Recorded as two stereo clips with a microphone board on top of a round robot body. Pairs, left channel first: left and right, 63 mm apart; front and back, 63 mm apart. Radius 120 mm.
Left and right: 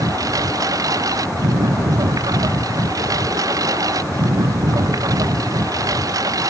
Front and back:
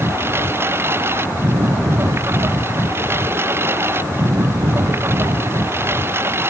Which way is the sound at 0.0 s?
125° right.